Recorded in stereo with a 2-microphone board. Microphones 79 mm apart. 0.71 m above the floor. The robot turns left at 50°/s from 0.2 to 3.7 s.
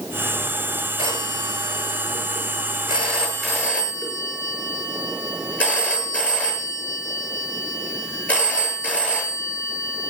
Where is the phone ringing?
60° right, 7 m; by 10.1 s 165° left, 7 m.